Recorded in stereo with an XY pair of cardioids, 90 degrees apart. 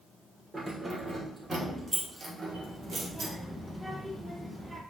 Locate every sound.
0.5 s keys jangling: 25° right, 2.5 m; by 3.3 s 60° right, 1.9 m
2.5 s a child speaking: 25° right, 2 m